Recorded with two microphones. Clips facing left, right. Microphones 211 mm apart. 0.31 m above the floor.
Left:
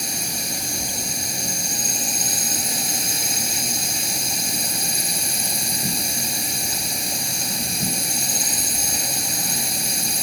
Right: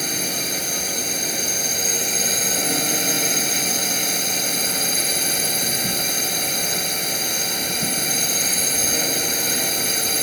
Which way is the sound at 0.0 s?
65° right (ahead or behind).